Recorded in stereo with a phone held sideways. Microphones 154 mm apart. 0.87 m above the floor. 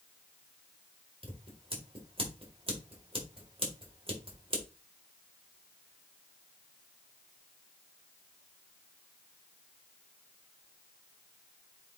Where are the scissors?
35° right (ahead or behind), 2.5 m.